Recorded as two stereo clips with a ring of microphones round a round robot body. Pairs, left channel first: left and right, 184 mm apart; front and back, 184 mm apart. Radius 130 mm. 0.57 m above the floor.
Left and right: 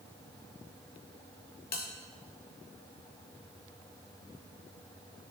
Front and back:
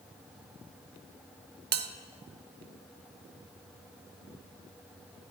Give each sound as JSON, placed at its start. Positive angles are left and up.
{"t": 1.7, "sound": "a bell", "azimuth_deg": 145, "distance_m": 0.5}